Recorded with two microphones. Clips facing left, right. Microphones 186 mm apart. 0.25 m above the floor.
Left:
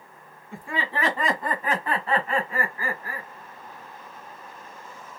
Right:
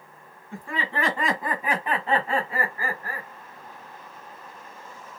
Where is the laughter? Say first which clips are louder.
Even; 15° left (ahead or behind), 1.6 m; by 3.3 s 50° right (ahead or behind), 1.4 m.